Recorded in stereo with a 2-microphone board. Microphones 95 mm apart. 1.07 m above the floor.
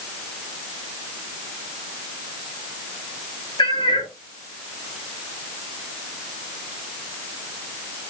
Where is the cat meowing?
60° left (ahead or behind), 0.9 m.